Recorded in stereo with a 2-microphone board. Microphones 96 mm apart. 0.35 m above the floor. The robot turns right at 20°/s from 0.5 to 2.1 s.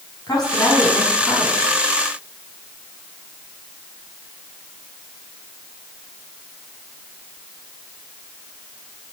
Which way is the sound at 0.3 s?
45° left (ahead or behind).